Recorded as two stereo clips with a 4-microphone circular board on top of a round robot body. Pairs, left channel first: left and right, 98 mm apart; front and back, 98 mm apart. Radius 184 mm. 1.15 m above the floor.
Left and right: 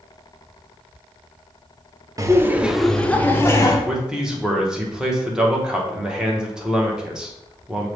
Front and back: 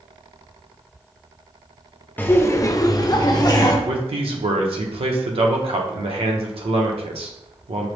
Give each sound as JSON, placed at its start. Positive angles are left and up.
{"t": 2.2, "sound": "laughter", "azimuth_deg": -60, "distance_m": 0.7}
{"t": 3.9, "sound": "a man speaking", "azimuth_deg": -170, "distance_m": 0.8}